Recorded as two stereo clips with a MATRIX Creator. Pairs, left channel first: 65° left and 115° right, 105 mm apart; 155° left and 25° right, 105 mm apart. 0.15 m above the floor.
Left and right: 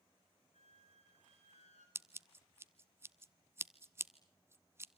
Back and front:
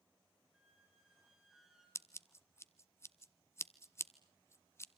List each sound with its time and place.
0.5 s a squeak: 65° left, 7.5 m
1.9 s scissors: 160° right, 0.9 m